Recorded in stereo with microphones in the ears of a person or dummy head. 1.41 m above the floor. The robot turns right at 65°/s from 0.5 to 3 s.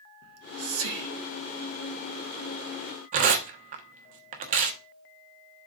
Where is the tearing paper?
45° right (ahead or behind), 1.0 m.